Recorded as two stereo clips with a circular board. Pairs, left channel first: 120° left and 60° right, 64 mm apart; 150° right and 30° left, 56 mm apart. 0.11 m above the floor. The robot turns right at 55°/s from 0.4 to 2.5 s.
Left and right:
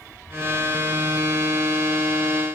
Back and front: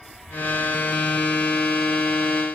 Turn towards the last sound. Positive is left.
No sound to turn to.